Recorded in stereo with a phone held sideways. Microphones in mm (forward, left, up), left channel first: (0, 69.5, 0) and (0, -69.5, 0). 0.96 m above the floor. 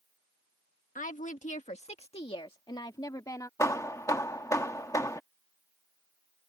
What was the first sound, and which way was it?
A woman speaking, 70° left (ahead or behind).